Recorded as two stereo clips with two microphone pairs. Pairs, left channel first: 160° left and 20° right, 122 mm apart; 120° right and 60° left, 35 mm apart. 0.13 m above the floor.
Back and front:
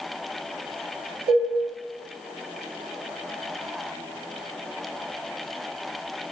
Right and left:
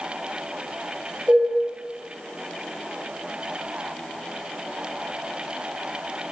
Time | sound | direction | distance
1.3 | dishes clattering | 55° left | 1.8 m